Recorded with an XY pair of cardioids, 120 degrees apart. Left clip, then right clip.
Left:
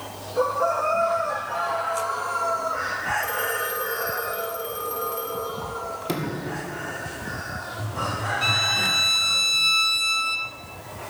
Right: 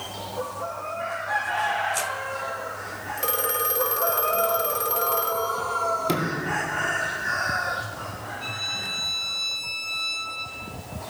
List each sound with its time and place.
3.2 s a phone ringing: 55° right, 2 m
6.0 s a sliding door: 15° right, 1.9 m
8.4 s a violin: 60° left, 1.3 m